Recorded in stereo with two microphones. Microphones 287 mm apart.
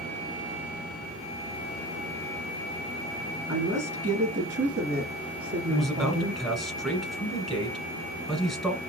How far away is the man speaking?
About 1.5 m.